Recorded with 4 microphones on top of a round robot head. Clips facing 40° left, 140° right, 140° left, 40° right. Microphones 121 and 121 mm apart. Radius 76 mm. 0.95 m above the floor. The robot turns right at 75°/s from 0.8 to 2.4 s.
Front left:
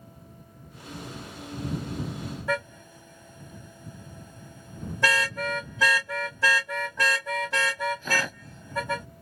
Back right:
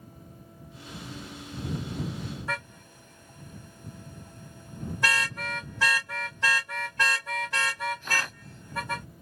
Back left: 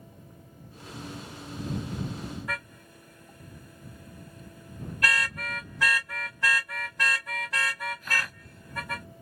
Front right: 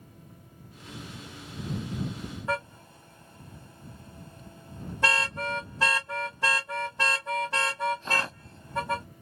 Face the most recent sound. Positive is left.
turn(degrees=25)